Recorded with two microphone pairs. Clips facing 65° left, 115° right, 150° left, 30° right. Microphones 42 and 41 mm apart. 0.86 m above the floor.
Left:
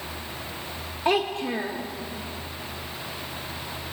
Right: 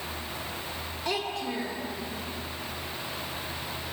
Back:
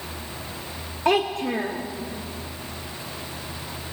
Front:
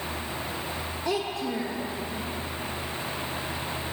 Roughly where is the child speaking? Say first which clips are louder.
Left 8 dB, back 8 dB; behind left.